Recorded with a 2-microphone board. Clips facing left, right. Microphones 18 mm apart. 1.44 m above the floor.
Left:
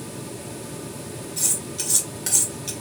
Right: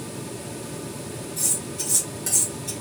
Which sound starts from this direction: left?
Cutlery clinking, at 1.4 s.